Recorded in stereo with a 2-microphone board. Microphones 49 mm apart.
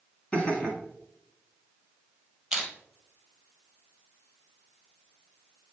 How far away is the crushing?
About 3 m.